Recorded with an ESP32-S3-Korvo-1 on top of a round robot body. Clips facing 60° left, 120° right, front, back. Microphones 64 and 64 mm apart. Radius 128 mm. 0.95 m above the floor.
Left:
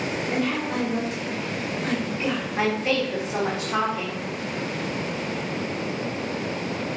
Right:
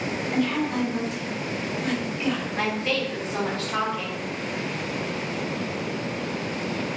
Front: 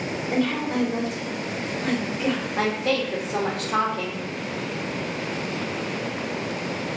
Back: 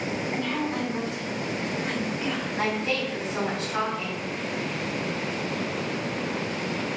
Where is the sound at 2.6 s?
10° right, 2.5 m.